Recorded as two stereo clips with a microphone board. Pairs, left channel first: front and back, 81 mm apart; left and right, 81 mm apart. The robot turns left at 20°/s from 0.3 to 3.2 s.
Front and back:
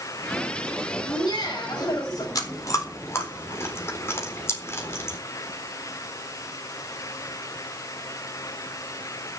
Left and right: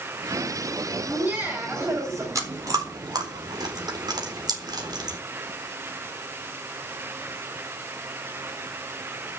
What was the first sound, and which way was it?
Laughter, 15° right.